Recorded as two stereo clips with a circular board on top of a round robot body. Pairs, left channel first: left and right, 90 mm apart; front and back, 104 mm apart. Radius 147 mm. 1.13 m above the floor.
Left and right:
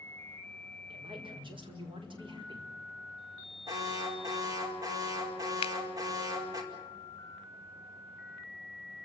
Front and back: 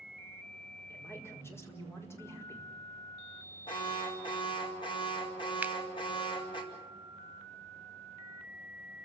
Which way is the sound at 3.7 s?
40° right.